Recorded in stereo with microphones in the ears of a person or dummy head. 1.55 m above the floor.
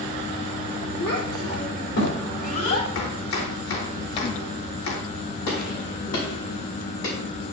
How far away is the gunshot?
About 6 m.